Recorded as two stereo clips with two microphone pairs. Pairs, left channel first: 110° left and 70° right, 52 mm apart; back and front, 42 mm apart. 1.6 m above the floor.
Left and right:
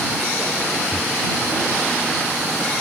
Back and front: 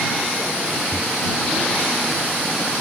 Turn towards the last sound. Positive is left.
turn(degrees=170)